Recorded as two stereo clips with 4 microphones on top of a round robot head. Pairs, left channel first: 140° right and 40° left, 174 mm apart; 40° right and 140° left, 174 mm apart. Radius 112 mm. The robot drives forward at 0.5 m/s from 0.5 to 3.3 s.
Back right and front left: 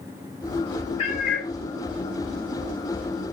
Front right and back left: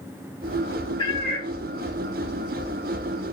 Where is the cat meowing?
100° right, 0.6 m; by 1.5 s 135° right, 0.6 m.